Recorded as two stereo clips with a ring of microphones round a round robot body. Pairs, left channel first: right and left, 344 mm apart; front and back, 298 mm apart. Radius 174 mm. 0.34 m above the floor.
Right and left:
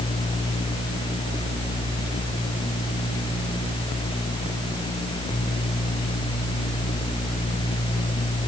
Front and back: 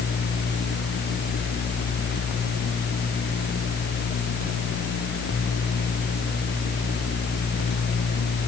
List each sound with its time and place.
Only background noise.